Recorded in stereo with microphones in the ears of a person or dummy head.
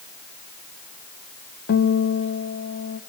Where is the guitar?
60° left (ahead or behind), 1.4 m.